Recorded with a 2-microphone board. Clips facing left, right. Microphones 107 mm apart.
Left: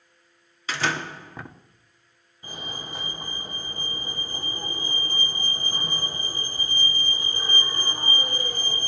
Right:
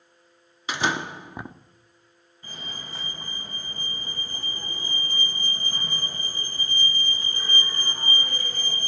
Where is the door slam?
15° right (ahead or behind), 1.2 m.